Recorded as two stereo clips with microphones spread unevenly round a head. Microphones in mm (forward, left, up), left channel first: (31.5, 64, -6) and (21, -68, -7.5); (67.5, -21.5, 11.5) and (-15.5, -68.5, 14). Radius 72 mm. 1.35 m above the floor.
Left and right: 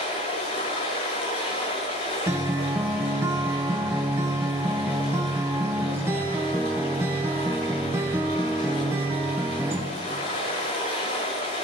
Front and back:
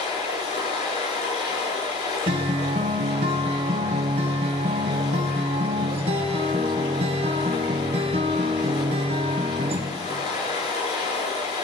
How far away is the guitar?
About 1.2 m.